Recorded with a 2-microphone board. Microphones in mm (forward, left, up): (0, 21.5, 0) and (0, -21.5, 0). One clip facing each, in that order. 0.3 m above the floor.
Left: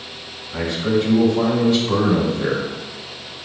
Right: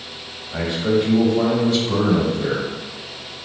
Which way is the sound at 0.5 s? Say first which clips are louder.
Even; 25° right (ahead or behind).